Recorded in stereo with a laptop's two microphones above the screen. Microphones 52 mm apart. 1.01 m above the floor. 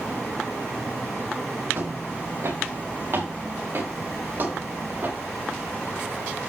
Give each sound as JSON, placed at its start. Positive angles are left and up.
{"t": 1.7, "sound": "footsteps", "side_deg": -65, "distance_m": 7.5}